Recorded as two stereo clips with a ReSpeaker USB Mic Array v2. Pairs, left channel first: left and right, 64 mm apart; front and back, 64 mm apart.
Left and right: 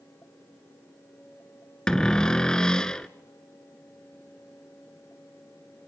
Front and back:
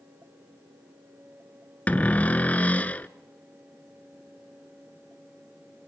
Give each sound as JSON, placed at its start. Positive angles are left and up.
{"t": 1.9, "sound": "a cupboard door", "azimuth_deg": 30, "distance_m": 0.9}